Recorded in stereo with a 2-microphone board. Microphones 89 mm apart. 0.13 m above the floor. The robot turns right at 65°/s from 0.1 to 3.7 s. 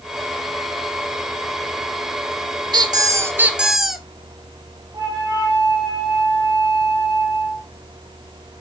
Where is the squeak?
65° right, 1.1 m; by 4.0 s 5° right, 1.1 m.